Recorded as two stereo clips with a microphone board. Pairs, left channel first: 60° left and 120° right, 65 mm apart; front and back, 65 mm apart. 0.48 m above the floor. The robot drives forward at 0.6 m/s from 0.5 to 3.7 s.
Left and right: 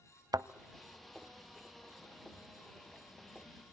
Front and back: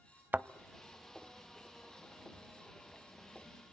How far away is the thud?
About 0.5 m.